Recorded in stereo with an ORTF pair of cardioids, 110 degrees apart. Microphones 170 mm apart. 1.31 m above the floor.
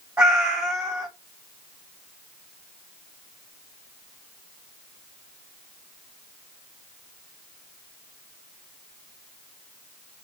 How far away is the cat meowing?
About 1.6 m.